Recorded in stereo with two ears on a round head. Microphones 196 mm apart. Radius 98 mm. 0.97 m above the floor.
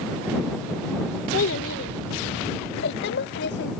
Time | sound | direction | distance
1.3 | a child speaking | 60° left (ahead or behind) | ?